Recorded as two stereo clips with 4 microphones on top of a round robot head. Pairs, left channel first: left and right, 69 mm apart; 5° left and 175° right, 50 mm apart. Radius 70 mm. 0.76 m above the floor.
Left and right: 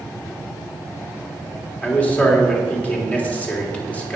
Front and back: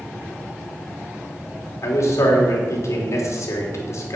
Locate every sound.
1.8 s a man speaking: 20° left, 3 m